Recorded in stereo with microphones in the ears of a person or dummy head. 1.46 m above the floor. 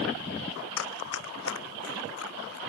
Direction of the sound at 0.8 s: 65° left (ahead or behind).